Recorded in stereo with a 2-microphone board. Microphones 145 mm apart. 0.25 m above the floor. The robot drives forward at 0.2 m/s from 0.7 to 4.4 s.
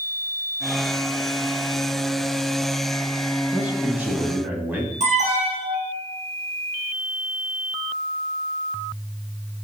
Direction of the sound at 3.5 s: 15° right (ahead or behind).